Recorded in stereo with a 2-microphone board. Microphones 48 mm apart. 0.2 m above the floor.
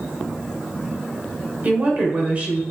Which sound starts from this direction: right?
A woman speaking, at 1.6 s.